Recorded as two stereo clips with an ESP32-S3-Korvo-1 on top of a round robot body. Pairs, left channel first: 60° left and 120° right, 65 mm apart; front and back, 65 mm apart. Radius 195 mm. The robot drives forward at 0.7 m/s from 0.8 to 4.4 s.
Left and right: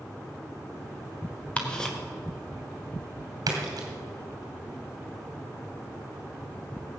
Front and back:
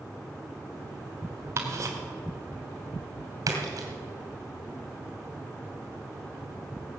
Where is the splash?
145° right, 2 m; by 3.9 s 150° right, 2.5 m.